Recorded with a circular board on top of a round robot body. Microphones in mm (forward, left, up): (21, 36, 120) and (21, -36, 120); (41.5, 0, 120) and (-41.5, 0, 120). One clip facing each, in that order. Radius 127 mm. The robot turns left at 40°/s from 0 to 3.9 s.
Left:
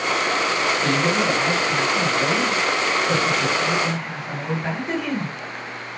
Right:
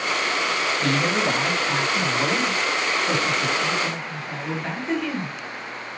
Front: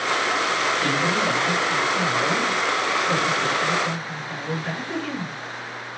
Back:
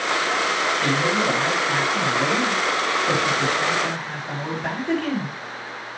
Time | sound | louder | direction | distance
0.8 | a man speaking | even, back 1 dB | 65° right | 7.5 m